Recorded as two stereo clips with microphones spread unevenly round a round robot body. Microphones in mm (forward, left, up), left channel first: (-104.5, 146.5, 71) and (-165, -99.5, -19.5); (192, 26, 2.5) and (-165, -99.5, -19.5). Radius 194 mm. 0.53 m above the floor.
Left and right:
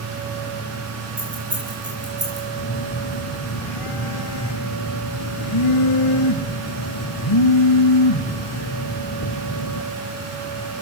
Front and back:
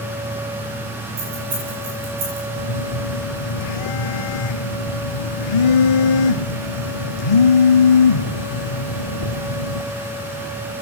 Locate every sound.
1.2 s keys jangling: 145° right, 9.5 m; by 2.5 s 150° right, 10.5 m
2.6 s a phone buzzing: 30° left, 1.1 m